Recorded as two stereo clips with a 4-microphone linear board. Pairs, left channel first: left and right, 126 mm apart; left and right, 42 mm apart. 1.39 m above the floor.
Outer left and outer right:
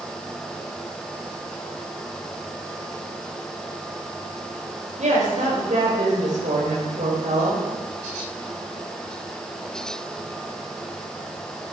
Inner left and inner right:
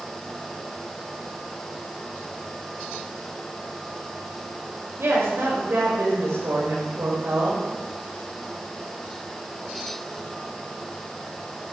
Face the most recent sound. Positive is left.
turn(degrees=-70)  # may be behind; listen again after turning